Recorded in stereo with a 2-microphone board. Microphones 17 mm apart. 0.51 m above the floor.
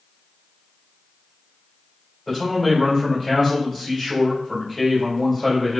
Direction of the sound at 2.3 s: 15° left (ahead or behind).